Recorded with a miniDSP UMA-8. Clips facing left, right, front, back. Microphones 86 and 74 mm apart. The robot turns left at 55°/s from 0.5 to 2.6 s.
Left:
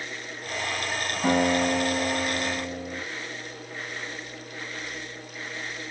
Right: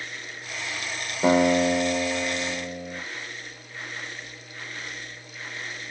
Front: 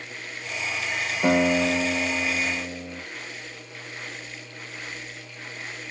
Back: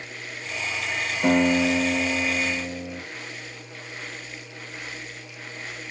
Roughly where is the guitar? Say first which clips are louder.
Right 4 dB, back 1 dB; right.